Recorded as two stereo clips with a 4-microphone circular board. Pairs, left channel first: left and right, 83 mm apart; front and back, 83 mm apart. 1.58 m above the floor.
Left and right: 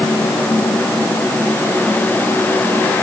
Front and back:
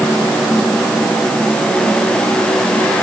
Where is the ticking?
No ticking in this recording.